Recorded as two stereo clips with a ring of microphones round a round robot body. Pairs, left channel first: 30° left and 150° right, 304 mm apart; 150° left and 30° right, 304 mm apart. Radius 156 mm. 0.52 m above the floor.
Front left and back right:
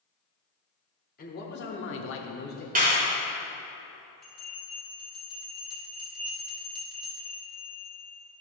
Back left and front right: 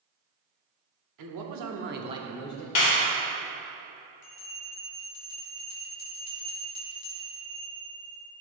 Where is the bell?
120° left, 2.5 m.